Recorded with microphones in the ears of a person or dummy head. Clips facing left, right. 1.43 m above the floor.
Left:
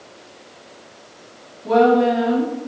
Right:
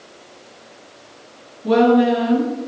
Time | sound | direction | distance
1.6 | a woman speaking | 30° right (ahead or behind) | 1.6 m